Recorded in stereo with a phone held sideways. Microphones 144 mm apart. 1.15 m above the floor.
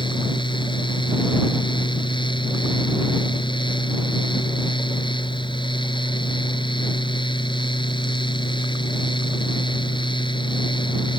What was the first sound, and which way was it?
A fan, 35° left (ahead or behind).